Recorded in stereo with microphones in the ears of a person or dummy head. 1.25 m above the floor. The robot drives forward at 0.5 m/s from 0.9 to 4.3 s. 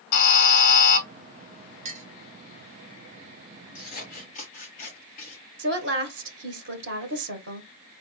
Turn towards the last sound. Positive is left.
turn(degrees=-65)  # may be behind; listen again after turning